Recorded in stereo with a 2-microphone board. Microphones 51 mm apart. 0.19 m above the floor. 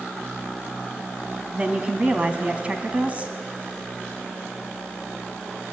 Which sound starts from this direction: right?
A woman speaking, at 1.5 s.